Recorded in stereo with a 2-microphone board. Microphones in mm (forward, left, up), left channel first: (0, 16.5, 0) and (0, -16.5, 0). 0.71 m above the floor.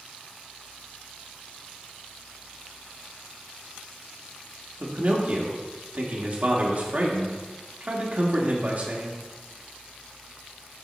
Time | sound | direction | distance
4.8 | a man speaking | 50° right (ahead or behind) | 1.4 m